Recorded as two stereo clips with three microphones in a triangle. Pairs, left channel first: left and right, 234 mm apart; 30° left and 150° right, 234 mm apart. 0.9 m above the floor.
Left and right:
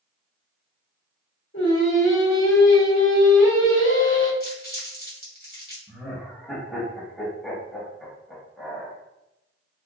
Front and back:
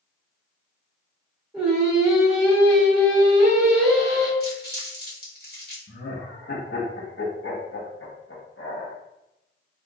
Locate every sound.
1.5 s singing: 125° left, 0.9 m
4.4 s crumpling: 55° left, 1.0 m
5.9 s laughter: 5° left, 0.8 m